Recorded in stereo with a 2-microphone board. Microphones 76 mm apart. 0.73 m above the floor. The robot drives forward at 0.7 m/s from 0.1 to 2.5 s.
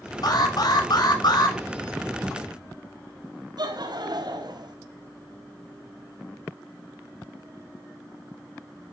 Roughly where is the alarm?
Left.